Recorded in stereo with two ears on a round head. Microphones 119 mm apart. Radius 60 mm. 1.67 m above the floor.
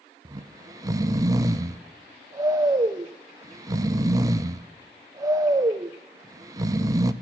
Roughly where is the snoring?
Right.